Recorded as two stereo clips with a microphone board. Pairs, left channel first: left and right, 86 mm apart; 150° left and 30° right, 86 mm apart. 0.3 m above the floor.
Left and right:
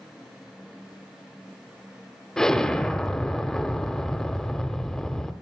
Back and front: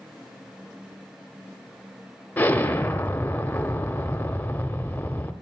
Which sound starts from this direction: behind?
An explosion, at 2.4 s.